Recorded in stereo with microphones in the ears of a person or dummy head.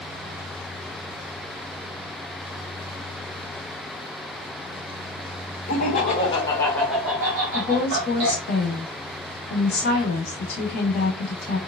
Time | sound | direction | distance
5.7 | laughter | 50° left (ahead or behind) | 0.9 m
7.5 | a woman speaking | 65° left (ahead or behind) | 1.5 m